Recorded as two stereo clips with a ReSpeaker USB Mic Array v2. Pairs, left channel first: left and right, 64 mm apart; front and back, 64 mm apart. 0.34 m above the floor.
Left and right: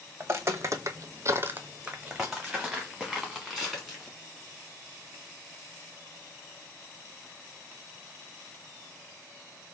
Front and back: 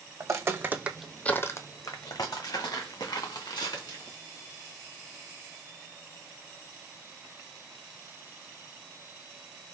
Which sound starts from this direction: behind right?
Footsteps, at 0.2 s.